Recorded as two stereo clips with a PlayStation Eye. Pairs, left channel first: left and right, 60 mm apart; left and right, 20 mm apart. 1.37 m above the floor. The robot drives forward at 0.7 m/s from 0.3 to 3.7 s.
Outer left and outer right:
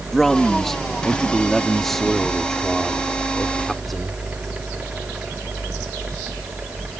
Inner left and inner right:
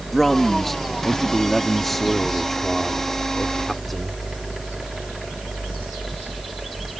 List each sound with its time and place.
0.1 s a man speaking: 5° left (ahead or behind)